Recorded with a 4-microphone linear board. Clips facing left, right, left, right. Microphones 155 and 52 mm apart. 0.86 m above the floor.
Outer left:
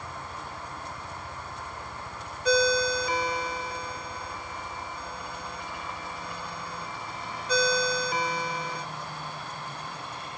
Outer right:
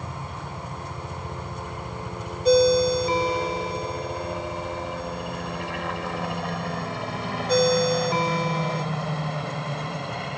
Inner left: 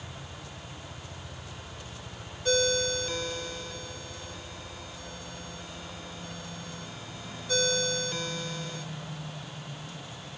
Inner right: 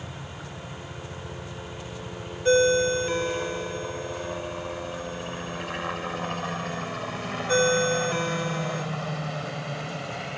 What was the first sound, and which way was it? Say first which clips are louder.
A helicopter: outer right 4 dB, inner right 5 dB; 65° right (ahead or behind).